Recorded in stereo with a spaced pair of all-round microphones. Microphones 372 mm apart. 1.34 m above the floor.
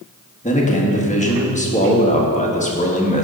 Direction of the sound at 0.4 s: 20° left (ahead or behind).